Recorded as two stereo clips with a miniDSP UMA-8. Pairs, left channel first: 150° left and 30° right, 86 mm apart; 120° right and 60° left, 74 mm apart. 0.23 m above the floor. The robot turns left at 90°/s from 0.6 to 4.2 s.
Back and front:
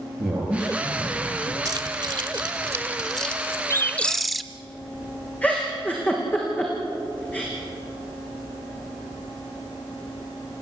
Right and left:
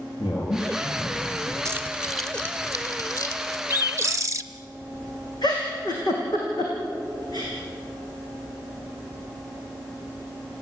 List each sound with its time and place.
0.2 s a man speaking: 115° right, 5 m; by 1.6 s 160° left, 5 m
1.6 s keys jangling: 15° left, 2.5 m; by 3.6 s 160° right, 2.5 m
3.7 s a bird: 110° left, 0.8 m; by 4.4 s 65° left, 0.8 m
5.4 s a giggle: 140° right, 6 m